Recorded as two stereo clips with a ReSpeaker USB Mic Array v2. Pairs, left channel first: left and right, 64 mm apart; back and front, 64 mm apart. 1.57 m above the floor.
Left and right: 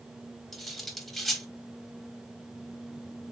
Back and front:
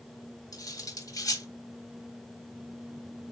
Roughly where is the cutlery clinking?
Behind.